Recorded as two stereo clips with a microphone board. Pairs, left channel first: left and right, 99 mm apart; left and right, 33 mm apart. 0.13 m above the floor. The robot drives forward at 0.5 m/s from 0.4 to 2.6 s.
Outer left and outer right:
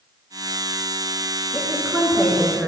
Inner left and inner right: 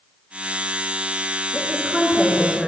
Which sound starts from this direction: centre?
A woman speaking, at 1.5 s.